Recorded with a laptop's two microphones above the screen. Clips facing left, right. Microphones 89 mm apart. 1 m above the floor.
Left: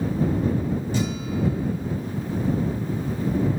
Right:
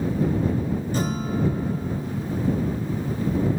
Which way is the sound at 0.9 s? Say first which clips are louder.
Right 1 dB; 45° right (ahead or behind).